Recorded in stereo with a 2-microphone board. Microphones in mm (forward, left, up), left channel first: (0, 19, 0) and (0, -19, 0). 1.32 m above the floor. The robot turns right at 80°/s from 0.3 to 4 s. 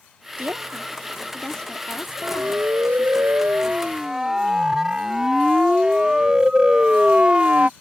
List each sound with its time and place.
0.4 s a woman speaking: 70° right (ahead or behind); by 3.2 s 25° left (ahead or behind)
2.2 s a siren: 30° right (ahead or behind); by 7.7 s 40° right (ahead or behind)